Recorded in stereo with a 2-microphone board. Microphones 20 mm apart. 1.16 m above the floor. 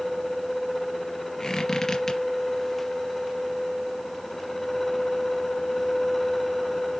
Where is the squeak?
30° left (ahead or behind), 3.5 m.